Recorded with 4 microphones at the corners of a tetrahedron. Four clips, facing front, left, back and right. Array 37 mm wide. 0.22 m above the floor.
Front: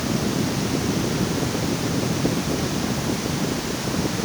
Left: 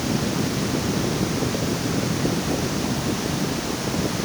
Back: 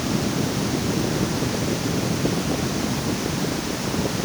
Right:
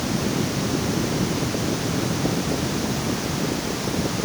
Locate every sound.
Only background noise.